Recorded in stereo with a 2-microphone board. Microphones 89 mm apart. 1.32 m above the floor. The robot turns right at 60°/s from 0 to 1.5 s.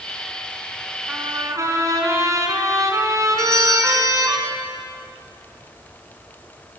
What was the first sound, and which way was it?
A trumpet, 10° right (ahead or behind).